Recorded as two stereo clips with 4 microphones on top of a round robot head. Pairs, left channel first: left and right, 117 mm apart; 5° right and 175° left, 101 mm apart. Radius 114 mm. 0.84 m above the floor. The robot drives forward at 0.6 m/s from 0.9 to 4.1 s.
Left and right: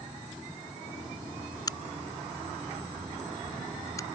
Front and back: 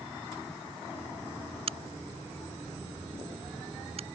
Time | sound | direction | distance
1.7 | a crack | 150° left | ?